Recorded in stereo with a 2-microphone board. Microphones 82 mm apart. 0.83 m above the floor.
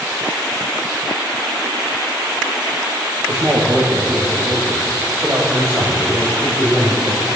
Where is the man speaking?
20° right (ahead or behind), 2 m; by 7.3 s 35° right (ahead or behind), 5.5 m.